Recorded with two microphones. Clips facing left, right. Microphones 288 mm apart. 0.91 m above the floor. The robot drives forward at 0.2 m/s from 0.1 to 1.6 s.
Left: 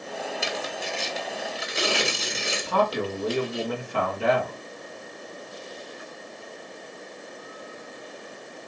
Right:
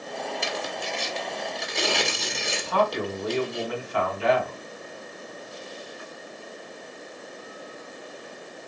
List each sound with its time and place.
0.4 s tearing paper: centre (ahead or behind), 0.8 m
2.6 s a man speaking: 60° left (ahead or behind), 2.5 m